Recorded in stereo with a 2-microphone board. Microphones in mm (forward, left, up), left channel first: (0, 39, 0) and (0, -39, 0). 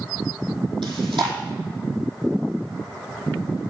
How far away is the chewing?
About 4 m.